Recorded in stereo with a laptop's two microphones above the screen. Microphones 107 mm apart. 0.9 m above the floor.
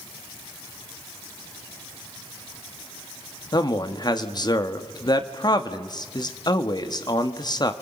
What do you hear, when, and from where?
3.5 s a man speaking: 40° left (ahead or behind), 1.5 m